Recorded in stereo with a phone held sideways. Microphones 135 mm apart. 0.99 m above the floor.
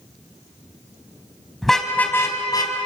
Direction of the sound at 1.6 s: Centre (ahead or behind).